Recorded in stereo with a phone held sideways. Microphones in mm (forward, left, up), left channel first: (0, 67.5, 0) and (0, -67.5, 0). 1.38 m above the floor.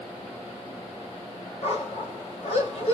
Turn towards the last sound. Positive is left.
turn(degrees=55)  # may be behind; listen again after turning